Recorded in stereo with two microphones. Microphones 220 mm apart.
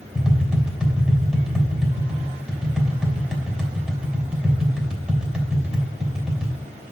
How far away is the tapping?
About 3 m.